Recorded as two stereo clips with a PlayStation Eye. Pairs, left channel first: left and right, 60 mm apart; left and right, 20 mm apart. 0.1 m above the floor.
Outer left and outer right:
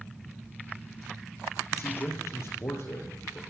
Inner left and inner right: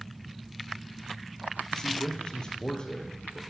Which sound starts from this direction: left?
A man speaking, at 1.7 s.